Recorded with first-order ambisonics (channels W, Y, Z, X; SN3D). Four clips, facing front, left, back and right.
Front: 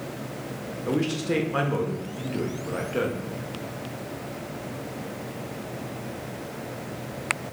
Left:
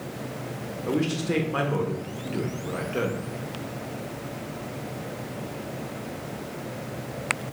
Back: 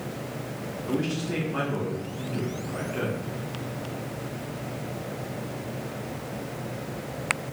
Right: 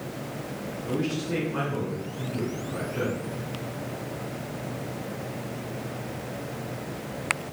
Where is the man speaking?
40° left, 1.1 m.